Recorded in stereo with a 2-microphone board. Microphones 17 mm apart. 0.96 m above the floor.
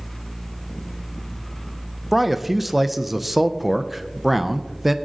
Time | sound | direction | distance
2.1 | a man speaking | 10° right (ahead or behind) | 0.5 m